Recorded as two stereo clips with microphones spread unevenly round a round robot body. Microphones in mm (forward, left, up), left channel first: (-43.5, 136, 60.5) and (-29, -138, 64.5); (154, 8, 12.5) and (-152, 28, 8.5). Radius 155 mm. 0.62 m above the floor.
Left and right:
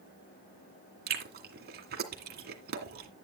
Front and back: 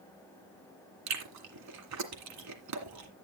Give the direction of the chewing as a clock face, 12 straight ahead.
5 o'clock.